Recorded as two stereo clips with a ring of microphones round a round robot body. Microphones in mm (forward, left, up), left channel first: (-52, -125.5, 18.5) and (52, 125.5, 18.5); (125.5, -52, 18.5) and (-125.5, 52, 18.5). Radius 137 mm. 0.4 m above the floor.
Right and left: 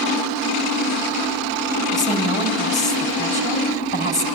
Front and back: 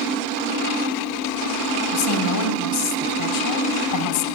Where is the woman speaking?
50° right, 3.5 m.